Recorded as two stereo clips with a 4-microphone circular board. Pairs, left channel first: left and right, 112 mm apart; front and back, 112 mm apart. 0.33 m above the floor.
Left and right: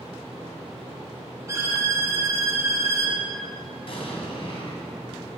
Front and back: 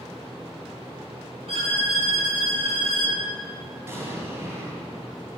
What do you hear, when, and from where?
1.5 s a violin: 155° right, 2.5 m
3.9 s an explosion: 115° left, 2.5 m